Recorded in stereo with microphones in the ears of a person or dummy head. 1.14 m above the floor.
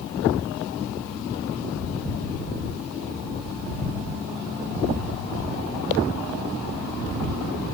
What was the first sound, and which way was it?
Only background noise.